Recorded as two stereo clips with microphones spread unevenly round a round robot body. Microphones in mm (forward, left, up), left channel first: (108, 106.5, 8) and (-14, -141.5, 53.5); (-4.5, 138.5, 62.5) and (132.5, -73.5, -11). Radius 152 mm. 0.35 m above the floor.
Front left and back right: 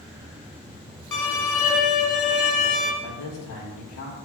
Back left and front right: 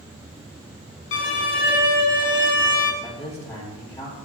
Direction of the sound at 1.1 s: 80° left.